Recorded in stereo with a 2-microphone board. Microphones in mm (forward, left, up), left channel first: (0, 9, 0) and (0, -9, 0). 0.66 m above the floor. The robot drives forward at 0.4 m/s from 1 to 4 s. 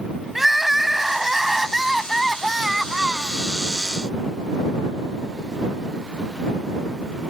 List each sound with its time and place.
0.3 s crying: 20° right (ahead or behind); by 3.4 s 10° right (ahead or behind)